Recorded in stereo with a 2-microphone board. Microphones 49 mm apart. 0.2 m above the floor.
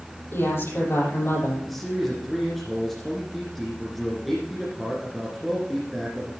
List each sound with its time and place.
0.3 s a woman speaking: 50° left (ahead or behind), 7 m
1.6 s a man speaking: centre (ahead or behind), 2.5 m